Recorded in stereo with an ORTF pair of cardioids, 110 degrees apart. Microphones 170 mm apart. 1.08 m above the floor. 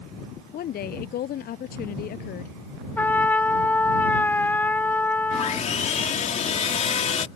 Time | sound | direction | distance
0.5 | a woman speaking | 65° left | ?
3.0 | a trumpet | 10° left | ?
5.3 | sawing | 45° left | ?